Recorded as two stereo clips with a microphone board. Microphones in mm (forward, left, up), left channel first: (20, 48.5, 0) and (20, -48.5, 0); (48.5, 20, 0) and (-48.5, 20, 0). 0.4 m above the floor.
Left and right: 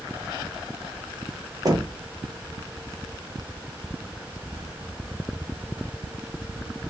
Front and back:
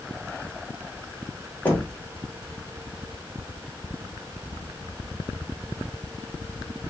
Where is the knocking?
65° right, 0.8 m.